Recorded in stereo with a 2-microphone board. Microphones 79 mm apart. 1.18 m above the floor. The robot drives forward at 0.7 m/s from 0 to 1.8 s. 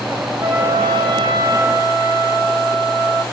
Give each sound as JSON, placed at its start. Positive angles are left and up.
{"t": 0.4, "sound": "a trumpet", "side_deg": -65, "distance_m": 2.5}